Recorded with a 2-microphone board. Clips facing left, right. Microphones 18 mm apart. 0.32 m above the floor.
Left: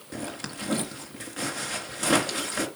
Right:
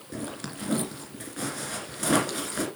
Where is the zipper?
15° left (ahead or behind), 2.5 m.